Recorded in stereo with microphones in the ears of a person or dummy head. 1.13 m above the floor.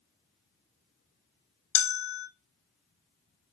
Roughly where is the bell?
Left.